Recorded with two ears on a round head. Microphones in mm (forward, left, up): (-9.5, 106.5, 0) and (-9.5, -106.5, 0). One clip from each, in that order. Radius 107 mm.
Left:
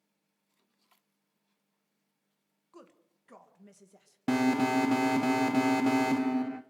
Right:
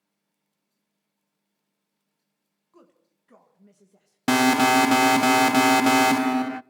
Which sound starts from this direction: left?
A woman speaking, at 2.7 s.